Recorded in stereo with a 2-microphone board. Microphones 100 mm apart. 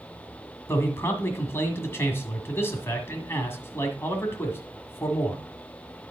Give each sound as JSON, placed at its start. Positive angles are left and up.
{"t": 0.7, "sound": "a man speaking", "side_deg": 25, "distance_m": 1.6}